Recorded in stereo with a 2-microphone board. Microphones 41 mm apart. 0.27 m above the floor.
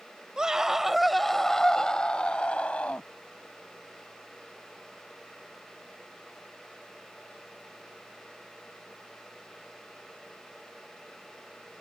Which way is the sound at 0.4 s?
20° right (ahead or behind).